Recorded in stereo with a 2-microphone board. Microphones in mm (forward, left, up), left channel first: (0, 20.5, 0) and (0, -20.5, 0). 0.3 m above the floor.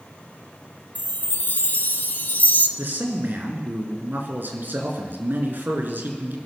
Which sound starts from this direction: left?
A chime, at 0.9 s.